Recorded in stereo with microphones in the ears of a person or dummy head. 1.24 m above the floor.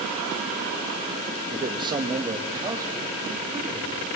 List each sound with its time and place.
1.5 s a man speaking: 25° right (ahead or behind), 1.6 m; by 4.1 s 10° right (ahead or behind), 4.5 m